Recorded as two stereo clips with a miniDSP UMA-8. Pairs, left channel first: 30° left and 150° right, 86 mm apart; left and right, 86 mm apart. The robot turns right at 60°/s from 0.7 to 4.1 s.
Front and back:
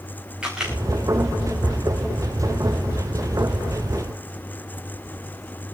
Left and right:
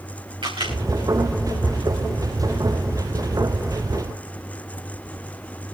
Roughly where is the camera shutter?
Right.